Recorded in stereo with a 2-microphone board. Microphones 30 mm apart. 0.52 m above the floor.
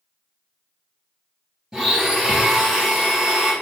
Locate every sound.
1.7 s a blender: 15° right (ahead or behind), 1.7 m